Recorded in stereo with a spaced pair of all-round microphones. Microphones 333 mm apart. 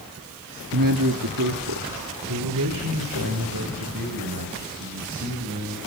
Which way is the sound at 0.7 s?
70° right (ahead or behind).